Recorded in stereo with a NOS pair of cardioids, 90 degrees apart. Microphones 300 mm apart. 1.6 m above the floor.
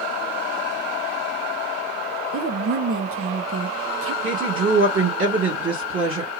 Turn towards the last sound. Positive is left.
turn(degrees=-40)